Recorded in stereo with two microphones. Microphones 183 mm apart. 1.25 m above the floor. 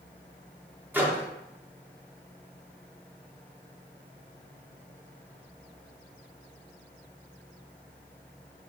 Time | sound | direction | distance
0.9 | a microwave | 10° right (ahead or behind) | 0.6 m